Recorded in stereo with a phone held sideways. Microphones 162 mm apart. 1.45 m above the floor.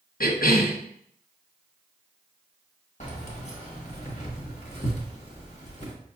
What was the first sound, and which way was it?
A cough, 65° left (ahead or behind).